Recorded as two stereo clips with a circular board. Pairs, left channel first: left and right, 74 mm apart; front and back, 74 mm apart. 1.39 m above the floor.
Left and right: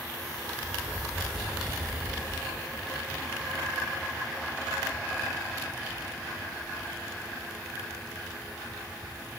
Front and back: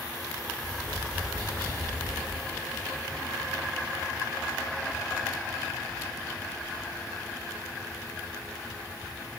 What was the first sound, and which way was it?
Tapping, 170° right.